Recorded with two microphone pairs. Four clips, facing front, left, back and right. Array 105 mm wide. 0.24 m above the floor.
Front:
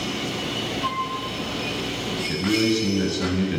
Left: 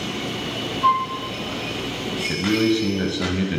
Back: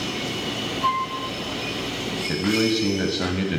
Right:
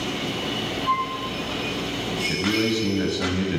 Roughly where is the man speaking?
Behind.